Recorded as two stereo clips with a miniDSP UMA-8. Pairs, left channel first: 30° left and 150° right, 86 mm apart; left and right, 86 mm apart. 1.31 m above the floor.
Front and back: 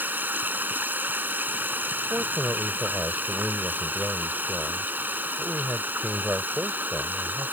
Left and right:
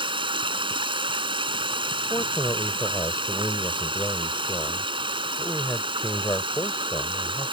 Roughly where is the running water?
Right.